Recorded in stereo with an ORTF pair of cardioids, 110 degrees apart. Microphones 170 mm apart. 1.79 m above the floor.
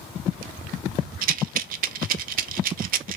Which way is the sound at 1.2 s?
60° right.